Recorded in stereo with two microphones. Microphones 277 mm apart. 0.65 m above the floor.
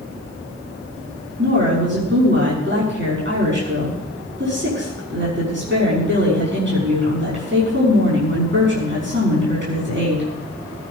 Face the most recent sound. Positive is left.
turn(degrees=-45)  # may be behind; listen again after turning